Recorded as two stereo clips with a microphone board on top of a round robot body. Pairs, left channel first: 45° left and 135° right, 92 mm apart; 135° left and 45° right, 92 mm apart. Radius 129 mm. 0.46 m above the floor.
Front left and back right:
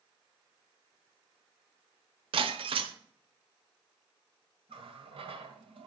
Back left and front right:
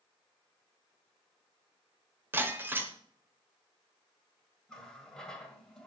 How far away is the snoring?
No snoring in this recording.